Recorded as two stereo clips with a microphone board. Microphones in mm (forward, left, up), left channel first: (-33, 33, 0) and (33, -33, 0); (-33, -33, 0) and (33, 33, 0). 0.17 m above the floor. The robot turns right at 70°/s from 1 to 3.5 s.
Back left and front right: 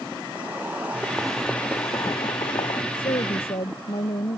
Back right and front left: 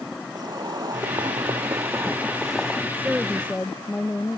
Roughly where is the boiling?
Ahead left.